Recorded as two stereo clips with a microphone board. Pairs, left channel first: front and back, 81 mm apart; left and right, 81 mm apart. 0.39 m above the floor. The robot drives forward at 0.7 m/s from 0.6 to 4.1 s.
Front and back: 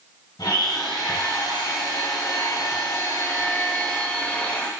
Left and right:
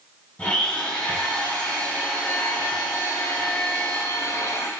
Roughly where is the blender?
Ahead.